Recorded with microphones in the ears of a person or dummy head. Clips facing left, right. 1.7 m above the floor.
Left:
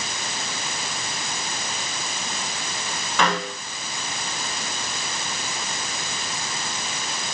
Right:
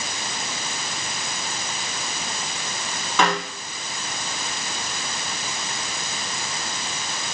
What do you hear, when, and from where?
3.2 s a snare drum: 80° right, 5 m